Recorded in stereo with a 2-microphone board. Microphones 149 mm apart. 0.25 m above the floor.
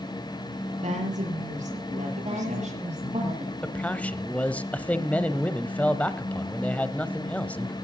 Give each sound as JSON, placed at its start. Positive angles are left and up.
{"t": 0.8, "sound": "a woman speaking", "side_deg": -55, "distance_m": 6.5}
{"t": 2.2, "sound": "a woman speaking", "side_deg": -45, "distance_m": 9.5}
{"t": 3.6, "sound": "a man speaking", "side_deg": 10, "distance_m": 0.9}